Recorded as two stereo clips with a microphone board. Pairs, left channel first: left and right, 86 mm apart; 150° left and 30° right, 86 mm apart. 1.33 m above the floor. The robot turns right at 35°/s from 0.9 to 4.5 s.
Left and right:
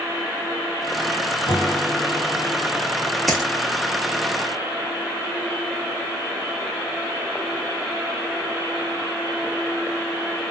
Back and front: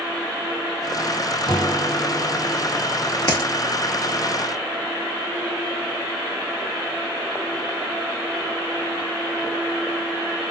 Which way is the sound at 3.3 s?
175° left.